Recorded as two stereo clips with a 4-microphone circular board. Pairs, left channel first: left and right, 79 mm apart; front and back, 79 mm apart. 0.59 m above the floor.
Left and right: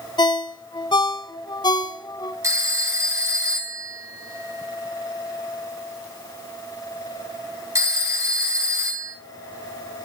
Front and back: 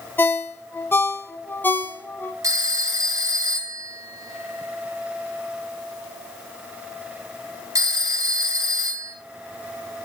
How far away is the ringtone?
About 1.6 m.